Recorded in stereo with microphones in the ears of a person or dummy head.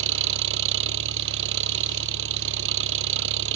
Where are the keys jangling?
I don't hear keys jangling.